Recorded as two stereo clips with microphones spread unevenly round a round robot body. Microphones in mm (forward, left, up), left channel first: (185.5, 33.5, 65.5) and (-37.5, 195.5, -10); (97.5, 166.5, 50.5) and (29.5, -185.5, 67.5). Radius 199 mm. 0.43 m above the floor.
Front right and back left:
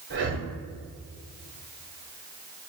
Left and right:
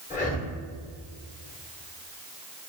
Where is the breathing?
145° left, 1.1 m.